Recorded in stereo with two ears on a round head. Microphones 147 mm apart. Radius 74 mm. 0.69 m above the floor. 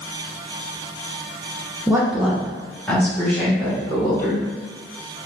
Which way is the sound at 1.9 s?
15° right (ahead or behind).